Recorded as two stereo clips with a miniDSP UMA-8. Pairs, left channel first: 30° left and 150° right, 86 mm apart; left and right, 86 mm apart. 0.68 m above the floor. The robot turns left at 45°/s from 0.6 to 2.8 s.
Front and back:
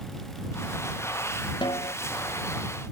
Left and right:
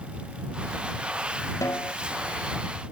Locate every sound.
1.6 s a snare drum: 40° left; by 1.9 s 25° left